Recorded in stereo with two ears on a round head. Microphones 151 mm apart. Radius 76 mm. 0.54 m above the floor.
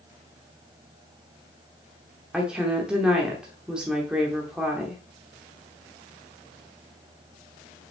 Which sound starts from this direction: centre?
A woman speaking, at 2.3 s.